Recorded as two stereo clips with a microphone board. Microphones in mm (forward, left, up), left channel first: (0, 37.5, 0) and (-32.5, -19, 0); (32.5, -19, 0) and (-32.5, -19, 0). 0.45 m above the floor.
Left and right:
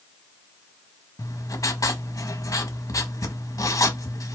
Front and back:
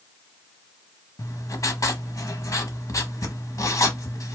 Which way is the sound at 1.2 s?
30° left.